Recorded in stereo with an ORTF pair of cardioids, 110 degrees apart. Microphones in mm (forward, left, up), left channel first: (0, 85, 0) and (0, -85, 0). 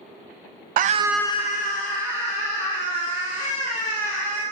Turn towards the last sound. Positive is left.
turn(degrees=75)